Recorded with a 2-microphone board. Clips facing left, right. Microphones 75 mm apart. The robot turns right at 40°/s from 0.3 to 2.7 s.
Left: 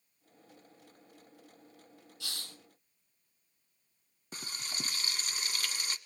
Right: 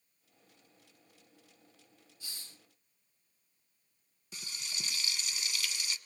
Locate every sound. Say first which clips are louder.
2.2 s a hiss: left 7 dB; 75° left (ahead or behind), 1.6 m; by 2.6 s 60° left (ahead or behind), 1.6 m
4.3 s frying: left 3 dB; 45° left (ahead or behind), 1.2 m